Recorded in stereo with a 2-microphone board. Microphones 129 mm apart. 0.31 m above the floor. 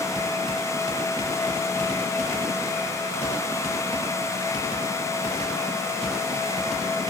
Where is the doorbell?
No doorbell in this recording.